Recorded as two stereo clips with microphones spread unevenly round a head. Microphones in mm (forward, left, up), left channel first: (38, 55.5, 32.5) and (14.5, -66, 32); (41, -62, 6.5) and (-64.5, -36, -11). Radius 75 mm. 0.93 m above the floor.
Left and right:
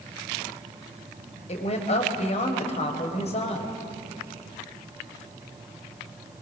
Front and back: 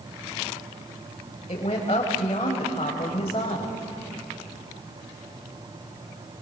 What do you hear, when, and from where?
1.5 s a woman speaking: 45° left, 3.5 m